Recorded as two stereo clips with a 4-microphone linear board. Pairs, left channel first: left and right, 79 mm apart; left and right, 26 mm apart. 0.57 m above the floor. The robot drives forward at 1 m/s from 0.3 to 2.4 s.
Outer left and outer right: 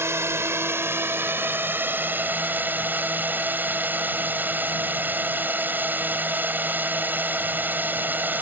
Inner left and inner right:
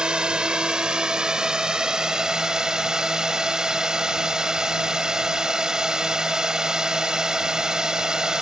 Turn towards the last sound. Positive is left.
turn(degrees=-25)  # may be behind; listen again after turning